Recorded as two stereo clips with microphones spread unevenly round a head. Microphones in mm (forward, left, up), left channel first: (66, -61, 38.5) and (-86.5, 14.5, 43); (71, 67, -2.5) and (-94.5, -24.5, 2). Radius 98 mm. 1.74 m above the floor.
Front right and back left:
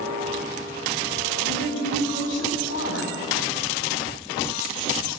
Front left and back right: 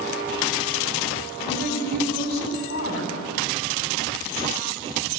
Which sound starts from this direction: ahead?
A woman speaking, at 1.4 s.